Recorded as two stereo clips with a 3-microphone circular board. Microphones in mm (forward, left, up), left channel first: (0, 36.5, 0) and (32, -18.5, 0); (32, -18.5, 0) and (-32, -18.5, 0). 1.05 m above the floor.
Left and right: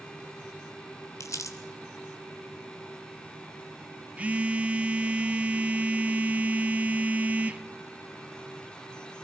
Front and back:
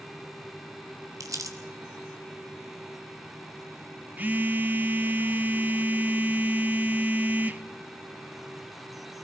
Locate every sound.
1.2 s crumpling: 155° left, 3 m
4.2 s a phone buzzing: 125° right, 0.8 m